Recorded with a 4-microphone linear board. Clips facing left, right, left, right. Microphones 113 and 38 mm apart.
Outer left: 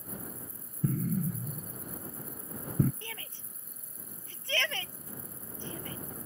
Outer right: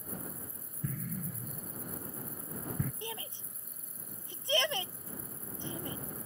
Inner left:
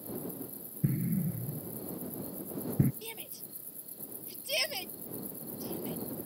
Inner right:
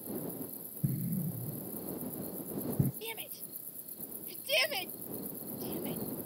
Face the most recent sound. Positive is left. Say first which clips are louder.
# outer right 4 dB, inner right 2 dB
turn(degrees=-20)  # may be behind; listen again after turning